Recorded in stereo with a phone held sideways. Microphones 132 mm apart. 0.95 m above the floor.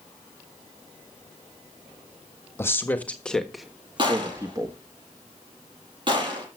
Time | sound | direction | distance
2.6 | a man speaking | 20° left (ahead or behind) | 1.6 m
4.0 | a gunshot | 35° right (ahead or behind) | 6 m